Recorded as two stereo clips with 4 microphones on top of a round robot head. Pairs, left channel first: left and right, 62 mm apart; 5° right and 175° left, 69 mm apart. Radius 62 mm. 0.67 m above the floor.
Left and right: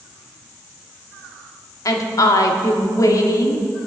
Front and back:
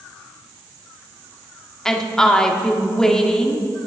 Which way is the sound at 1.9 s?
75° left.